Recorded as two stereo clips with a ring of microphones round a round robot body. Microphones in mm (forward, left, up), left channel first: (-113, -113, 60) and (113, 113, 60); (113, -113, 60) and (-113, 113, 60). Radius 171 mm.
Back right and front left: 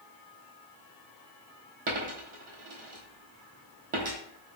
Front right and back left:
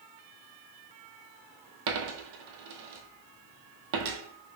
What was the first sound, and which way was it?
A dropped coin, 110° left.